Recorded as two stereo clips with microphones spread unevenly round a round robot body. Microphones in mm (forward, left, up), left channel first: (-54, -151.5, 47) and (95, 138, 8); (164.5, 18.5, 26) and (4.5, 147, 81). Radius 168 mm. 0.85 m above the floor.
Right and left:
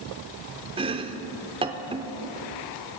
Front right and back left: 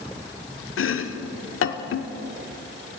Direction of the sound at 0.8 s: 15° right.